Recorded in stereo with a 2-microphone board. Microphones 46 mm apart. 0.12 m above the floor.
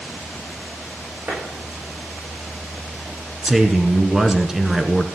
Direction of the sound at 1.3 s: 35° right (ahead or behind).